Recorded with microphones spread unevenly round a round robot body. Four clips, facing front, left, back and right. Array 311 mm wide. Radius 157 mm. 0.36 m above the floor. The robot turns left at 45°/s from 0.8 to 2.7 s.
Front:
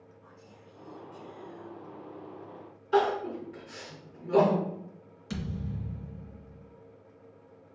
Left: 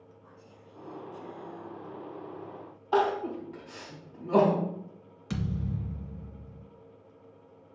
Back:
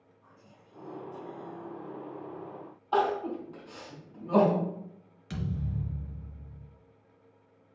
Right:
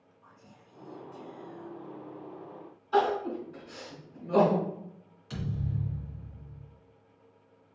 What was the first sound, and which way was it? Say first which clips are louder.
Whispering: left 3 dB, front 1 dB; 115° right.